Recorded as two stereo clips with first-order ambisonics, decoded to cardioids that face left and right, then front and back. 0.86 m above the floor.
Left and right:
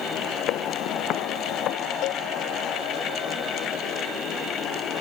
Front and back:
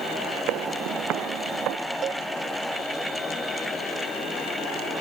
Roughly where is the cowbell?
Behind left.